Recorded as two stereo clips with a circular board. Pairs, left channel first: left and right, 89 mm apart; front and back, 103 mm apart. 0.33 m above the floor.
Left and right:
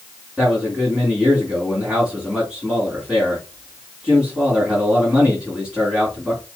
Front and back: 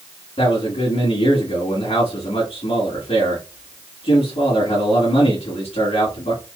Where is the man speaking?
10° right, 3 m.